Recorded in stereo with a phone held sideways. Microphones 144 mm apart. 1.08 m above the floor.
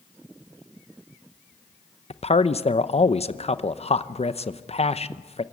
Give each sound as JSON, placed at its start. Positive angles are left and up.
{"t": 2.1, "sound": "a man speaking", "side_deg": 45, "distance_m": 0.8}